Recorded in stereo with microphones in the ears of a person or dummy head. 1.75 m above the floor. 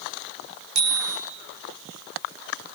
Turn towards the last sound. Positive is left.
turn(degrees=-55)  # may be behind; listen again after turning